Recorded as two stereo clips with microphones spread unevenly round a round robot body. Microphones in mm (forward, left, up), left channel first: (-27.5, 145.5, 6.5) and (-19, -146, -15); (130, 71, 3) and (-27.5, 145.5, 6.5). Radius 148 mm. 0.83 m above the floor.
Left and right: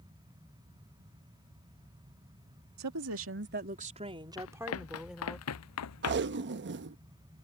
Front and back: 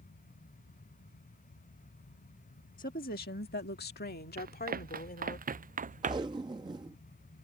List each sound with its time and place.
2.8 s a woman speaking: 70° right; by 5.4 s 5° left
4.4 s running footsteps: 130° left; by 6.4 s 115° left
6.0 s tape being pulled: 135° right